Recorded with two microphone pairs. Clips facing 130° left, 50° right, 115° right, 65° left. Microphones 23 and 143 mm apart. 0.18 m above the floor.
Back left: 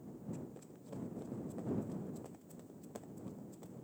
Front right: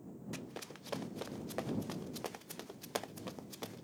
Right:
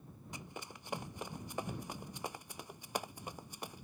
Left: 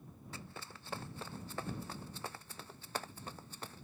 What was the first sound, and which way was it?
Running footsteps, 45° right.